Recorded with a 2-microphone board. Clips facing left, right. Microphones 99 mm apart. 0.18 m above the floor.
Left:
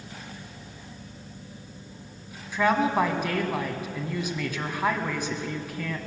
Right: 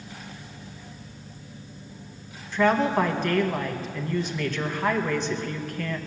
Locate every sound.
2.5 s a woman speaking: 10° left (ahead or behind), 1.5 m